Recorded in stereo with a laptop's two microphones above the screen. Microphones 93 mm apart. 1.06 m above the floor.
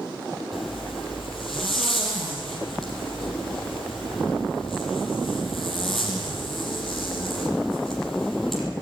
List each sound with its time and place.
0.5 s a zipper: 5° left (ahead or behind), 6 m